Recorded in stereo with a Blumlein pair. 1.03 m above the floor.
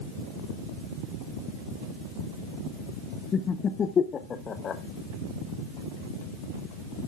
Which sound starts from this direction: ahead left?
Laughter, at 3.3 s.